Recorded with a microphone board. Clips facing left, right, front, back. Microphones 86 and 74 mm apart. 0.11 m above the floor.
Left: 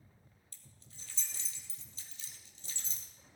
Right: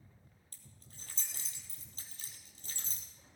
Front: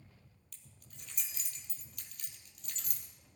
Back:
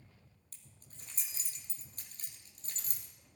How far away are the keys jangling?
About 2.5 m.